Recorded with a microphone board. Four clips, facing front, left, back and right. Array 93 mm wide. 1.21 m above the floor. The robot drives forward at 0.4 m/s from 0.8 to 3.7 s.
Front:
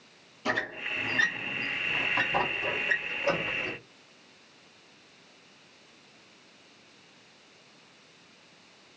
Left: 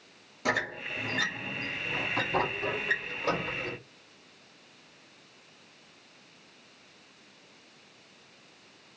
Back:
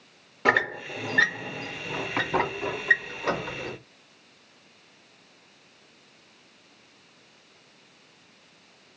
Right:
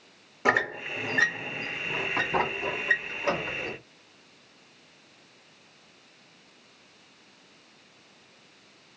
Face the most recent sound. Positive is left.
turn(degrees=-165)